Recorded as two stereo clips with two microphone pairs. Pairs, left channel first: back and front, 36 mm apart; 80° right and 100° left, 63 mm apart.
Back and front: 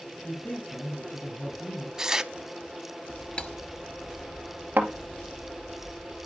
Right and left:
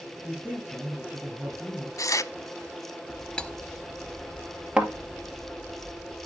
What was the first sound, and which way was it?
A man speaking, 165° left.